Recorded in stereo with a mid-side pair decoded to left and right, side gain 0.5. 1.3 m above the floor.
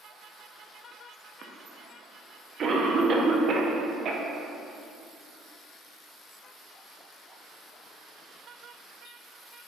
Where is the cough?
50° right, 0.8 m.